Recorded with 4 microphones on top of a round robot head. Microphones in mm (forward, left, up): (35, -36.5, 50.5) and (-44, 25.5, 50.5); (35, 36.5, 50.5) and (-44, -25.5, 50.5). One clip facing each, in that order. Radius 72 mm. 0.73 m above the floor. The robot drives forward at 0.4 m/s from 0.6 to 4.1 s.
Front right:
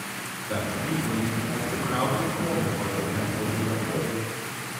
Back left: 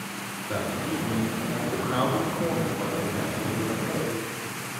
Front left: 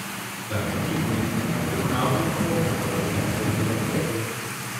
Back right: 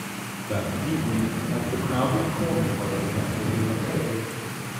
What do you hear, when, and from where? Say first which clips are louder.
0.5 s a man speaking: even, even; 125° right, 1.6 m; by 4.3 s 155° right, 2.5 m